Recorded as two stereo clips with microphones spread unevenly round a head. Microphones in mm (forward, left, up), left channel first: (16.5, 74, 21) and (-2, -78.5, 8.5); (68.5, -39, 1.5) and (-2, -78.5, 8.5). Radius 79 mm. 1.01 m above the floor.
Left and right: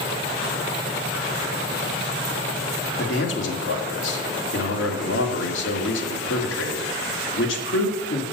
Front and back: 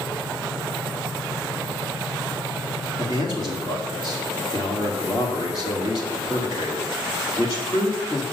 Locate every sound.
3.0 s a man speaking: 90° left, 2 m